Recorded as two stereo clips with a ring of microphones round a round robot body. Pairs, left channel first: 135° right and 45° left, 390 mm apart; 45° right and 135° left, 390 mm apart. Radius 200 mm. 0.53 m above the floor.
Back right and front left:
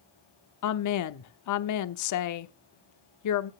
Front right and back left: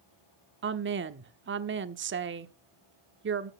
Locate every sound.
0.6 s a woman speaking: 170° right, 1.0 m